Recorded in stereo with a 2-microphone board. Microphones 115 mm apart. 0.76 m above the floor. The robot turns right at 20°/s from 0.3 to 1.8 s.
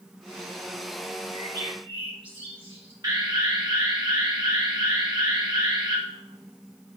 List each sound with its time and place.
1.3 s a bird: 35° right (ahead or behind), 4.5 m; by 2.9 s 45° right (ahead or behind), 4.5 m
3.0 s an alarm: 40° right (ahead or behind), 3 m